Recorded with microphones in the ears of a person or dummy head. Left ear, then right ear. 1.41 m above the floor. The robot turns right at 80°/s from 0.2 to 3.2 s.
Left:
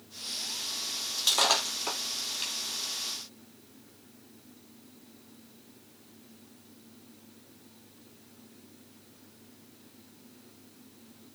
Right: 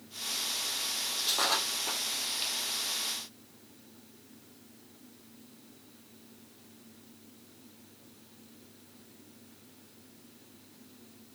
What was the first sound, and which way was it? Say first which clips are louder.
Breaking glass: left 5 dB; 70° left (ahead or behind).